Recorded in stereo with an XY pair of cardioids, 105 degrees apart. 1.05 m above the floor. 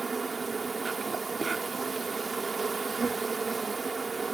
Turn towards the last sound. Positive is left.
turn(degrees=-25)